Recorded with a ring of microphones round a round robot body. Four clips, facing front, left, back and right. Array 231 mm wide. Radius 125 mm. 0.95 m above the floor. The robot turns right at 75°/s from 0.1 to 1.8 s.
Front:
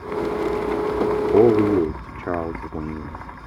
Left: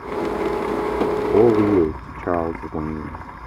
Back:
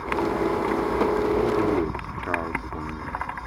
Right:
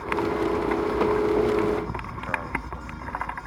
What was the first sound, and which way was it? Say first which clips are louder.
A man speaking: left 8 dB, front 7 dB; 40° left.